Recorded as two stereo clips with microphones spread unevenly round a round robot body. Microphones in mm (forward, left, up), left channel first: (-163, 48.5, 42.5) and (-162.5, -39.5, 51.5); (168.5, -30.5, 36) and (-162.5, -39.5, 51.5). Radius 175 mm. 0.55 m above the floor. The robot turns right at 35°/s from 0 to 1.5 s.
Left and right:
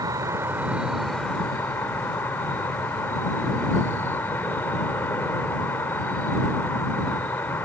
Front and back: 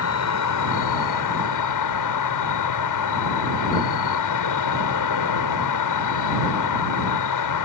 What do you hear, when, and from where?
0.0 s an insect: 35° right; by 7.7 s 15° left